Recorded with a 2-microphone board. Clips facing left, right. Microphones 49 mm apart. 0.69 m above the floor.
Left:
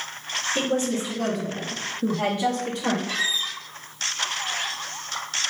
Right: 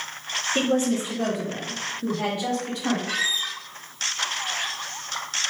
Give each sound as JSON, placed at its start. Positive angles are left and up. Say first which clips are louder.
{"t": 0.6, "sound": "a woman speaking", "louder": "right 3 dB", "side_deg": -35, "distance_m": 1.2}
{"t": 3.1, "sound": "a squeak", "louder": "even", "side_deg": -80, "distance_m": 1.6}